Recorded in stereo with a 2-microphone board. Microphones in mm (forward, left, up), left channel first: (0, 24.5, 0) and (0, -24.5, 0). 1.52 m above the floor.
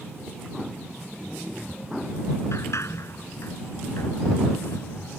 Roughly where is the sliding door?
Left.